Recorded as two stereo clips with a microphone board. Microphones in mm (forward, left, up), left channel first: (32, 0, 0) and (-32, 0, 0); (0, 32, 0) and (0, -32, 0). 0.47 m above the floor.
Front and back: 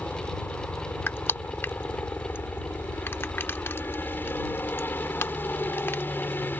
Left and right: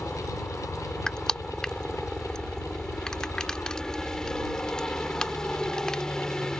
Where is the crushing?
15° left.